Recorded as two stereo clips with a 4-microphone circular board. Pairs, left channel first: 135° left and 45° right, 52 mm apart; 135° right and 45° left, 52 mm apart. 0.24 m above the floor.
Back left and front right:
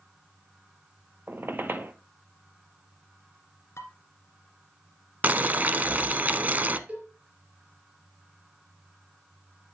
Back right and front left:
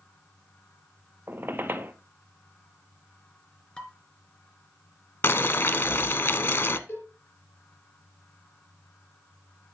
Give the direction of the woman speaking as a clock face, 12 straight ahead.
I don't hear a woman speaking.